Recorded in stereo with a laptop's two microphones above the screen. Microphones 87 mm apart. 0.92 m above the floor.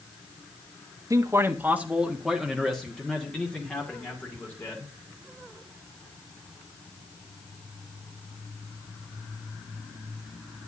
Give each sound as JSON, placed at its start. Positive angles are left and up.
{"t": 1.1, "sound": "a man speaking", "side_deg": -40, "distance_m": 0.8}